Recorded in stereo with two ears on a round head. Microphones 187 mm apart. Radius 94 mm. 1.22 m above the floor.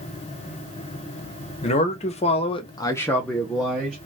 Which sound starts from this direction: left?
A man speaking, at 1.6 s.